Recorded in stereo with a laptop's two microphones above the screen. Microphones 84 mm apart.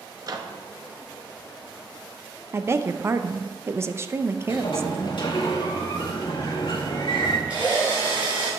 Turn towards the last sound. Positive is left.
turn(degrees=-15)  # may be behind; listen again after turning